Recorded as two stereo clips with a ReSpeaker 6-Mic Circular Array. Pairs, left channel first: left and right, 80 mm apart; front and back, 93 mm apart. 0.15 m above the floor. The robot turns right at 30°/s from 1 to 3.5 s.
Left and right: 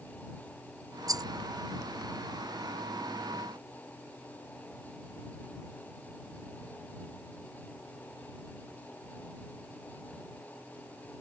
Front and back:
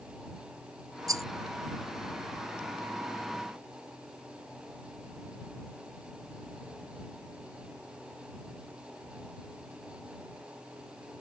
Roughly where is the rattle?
Behind right.